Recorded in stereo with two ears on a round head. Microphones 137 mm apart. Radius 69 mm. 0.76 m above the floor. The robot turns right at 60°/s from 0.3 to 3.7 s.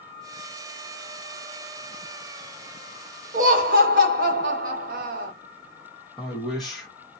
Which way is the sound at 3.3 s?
50° right (ahead or behind).